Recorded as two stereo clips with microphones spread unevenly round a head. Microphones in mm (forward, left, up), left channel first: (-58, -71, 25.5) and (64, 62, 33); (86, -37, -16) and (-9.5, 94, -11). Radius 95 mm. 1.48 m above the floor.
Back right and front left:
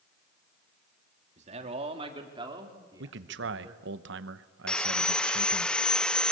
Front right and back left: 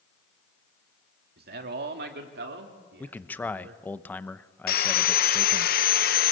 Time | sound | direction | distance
1.4 | a man speaking | 100° left | 2.5 m
3.0 | a man speaking | 25° left | 1.0 m
4.7 | sawing | 45° right | 0.8 m